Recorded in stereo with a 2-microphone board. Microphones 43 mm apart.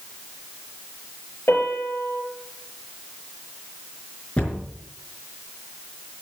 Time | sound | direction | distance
1.5 | a piano | 55° left (ahead or behind) | 4 m
4.4 | a cupboard door | 30° left (ahead or behind) | 4.5 m